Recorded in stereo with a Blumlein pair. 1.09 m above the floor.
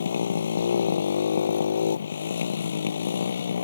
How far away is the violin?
I don't hear a violin.